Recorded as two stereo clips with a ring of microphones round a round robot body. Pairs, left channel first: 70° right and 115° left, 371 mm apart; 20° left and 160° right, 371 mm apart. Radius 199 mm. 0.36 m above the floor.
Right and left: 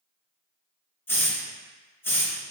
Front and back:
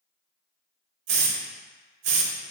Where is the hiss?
150° right, 0.7 m.